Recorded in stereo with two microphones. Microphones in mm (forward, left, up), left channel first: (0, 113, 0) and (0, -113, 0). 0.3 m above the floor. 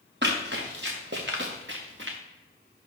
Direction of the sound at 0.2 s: 50° right (ahead or behind).